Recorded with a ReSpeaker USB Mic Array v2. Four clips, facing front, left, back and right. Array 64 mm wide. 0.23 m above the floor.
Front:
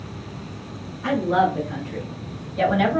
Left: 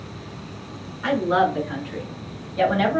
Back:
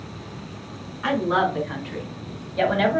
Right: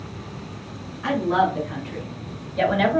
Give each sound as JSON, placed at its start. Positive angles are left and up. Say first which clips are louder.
{"t": 1.0, "sound": "a woman speaking", "louder": "left 1 dB, front 1 dB", "azimuth_deg": 165, "distance_m": 2.5}